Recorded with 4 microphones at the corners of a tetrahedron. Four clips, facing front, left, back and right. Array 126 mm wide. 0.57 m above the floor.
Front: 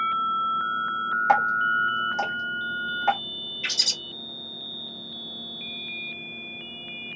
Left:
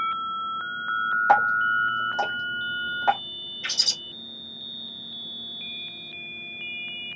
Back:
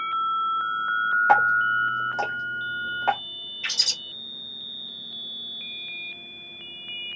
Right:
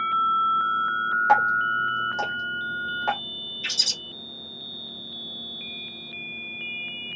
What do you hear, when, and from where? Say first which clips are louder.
1.3 s dripping: left 1 dB, back 1 dB; 115° left, 1.2 m
3.6 s a bird: left 1 dB, even; 95° left, 1.5 m